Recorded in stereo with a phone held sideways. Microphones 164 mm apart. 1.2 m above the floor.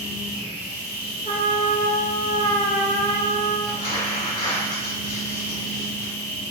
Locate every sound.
0.0 s a machine running: 50° left (ahead or behind), 1.6 m
1.2 s a trumpet: 50° left (ahead or behind), 0.7 m
3.7 s crumpling: 30° left (ahead or behind), 1.7 m